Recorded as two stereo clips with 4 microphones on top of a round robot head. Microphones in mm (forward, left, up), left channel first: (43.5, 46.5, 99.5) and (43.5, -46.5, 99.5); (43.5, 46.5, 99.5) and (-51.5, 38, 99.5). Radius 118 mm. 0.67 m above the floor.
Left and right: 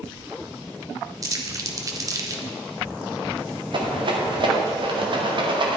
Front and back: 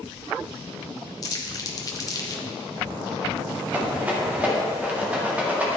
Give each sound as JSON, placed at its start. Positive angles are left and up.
{"t": 1.2, "sound": "crumpling", "azimuth_deg": -40, "distance_m": 1.5}
{"t": 3.7, "sound": "a rattle", "azimuth_deg": -100, "distance_m": 1.9}